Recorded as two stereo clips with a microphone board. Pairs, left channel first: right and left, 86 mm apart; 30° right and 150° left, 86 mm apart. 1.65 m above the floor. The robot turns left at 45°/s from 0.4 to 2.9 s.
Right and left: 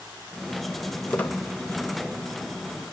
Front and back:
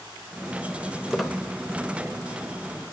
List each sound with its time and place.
1.1 s a squeak: 120° right, 1.0 m; by 1.4 s 135° right, 1.0 m